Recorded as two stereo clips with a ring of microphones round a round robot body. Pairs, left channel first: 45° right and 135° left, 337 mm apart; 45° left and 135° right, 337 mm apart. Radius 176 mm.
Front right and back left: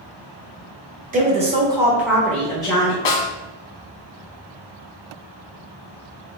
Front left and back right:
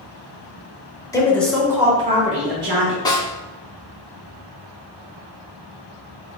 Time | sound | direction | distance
1.1 | a woman speaking | 110° left | 1.3 m
3.0 | a snare drum | 35° right | 0.9 m